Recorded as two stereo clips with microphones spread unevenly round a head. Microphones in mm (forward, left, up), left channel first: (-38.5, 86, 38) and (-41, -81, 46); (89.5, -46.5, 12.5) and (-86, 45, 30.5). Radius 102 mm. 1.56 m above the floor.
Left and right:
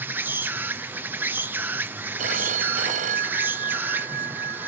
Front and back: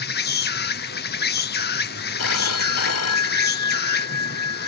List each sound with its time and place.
0.0 s an insect: 10° right
2.2 s a phone ringing: 40° right